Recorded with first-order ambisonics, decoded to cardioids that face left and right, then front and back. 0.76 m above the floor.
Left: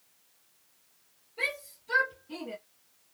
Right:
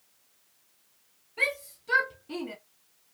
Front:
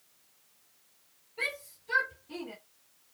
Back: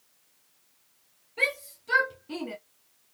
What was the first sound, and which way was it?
A shout, 135° right.